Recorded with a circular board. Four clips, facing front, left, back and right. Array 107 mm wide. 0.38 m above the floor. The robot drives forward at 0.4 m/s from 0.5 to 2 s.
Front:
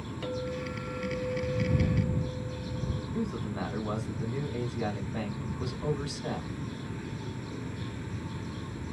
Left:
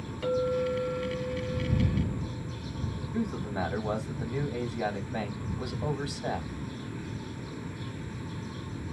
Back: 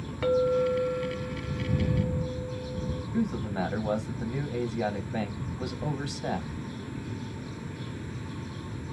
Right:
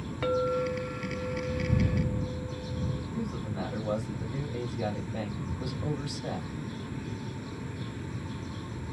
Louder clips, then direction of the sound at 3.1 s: Left 6 dB, back 5 dB; 145° left.